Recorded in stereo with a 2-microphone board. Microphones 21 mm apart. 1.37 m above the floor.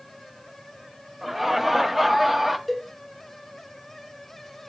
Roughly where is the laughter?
Centre.